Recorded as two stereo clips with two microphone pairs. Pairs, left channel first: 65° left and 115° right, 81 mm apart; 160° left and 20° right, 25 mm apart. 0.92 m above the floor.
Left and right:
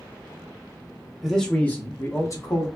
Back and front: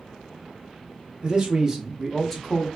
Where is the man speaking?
25° right, 0.9 m; by 2.7 s 90° left, 1.1 m.